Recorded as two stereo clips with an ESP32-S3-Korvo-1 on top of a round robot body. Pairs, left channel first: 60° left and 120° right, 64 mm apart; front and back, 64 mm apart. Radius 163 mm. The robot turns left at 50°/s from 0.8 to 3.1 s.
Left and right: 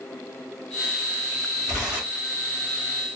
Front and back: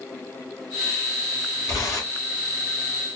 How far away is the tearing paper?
About 2.5 m.